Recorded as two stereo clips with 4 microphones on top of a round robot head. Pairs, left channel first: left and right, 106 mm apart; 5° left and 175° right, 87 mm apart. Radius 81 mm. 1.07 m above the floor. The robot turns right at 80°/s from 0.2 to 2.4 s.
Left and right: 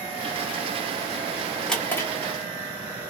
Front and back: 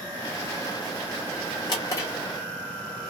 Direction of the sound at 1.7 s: 5° left.